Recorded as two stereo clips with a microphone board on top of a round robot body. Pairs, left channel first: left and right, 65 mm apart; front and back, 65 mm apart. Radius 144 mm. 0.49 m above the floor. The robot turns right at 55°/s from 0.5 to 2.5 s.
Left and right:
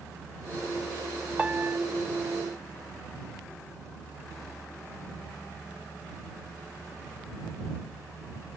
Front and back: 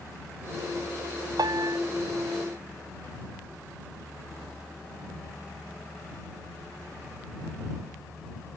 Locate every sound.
1.4 s a piano: 165° right; by 1.8 s 140° right